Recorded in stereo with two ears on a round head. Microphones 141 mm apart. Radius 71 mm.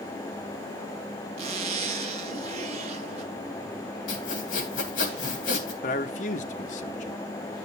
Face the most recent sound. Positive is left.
turn(degrees=50)  # may be behind; listen again after turning